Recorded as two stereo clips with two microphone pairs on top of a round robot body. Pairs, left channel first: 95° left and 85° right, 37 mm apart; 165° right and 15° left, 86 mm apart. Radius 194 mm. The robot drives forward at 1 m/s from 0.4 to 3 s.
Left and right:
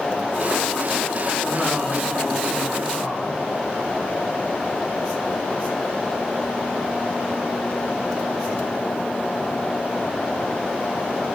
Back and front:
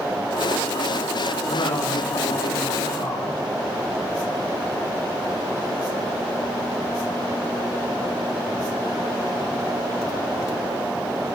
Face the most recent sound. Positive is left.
turn(degrees=175)